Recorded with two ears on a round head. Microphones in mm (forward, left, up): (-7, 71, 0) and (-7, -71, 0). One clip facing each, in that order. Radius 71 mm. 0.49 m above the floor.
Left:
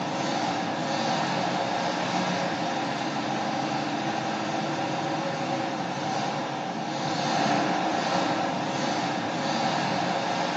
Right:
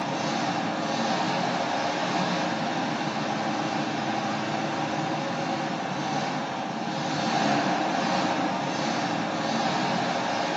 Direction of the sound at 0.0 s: 35° left (ahead or behind).